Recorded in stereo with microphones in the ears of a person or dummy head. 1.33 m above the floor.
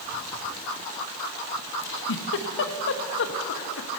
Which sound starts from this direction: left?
A giggle, at 1.8 s.